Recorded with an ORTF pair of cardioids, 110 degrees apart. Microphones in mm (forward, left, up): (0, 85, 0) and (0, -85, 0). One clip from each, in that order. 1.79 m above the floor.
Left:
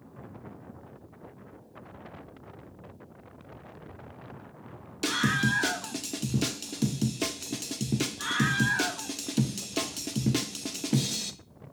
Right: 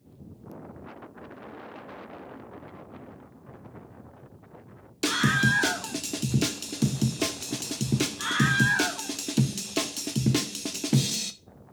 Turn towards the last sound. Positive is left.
turn(degrees=-15)